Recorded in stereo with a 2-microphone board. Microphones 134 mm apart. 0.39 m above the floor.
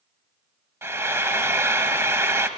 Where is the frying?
20° right (ahead or behind), 0.9 m.